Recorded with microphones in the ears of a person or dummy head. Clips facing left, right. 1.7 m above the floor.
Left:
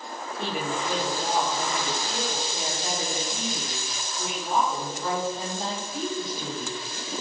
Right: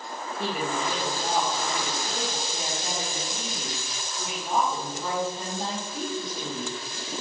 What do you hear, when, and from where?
0.4 s a woman speaking: centre (ahead or behind), 2 m